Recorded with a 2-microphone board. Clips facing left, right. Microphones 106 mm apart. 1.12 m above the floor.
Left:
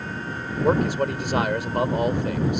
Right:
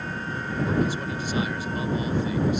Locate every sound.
0.6 s a man speaking: 65° left (ahead or behind)